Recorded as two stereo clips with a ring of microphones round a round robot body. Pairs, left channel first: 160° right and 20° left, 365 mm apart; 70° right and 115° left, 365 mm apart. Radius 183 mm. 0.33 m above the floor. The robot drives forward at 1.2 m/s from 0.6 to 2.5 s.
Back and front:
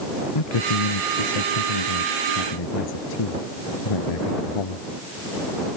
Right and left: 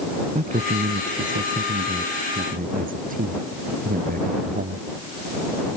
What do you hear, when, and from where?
0.3 s a man speaking: 175° right; by 4.8 s straight behind